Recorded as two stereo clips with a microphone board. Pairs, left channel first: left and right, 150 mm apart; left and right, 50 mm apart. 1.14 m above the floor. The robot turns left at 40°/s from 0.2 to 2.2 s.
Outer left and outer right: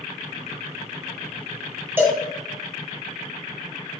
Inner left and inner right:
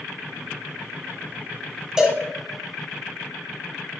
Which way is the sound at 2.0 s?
15° right (ahead or behind).